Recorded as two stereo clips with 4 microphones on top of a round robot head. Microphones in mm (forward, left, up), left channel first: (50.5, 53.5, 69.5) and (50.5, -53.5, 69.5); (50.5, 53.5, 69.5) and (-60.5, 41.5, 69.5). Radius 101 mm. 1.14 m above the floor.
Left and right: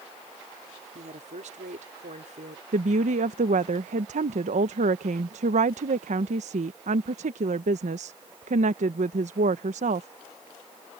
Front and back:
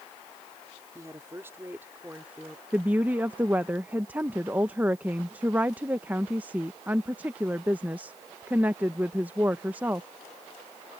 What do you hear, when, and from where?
0.9 s a woman speaking: 105° right; by 2.6 s 90° right
2.7 s a woman speaking: 95° right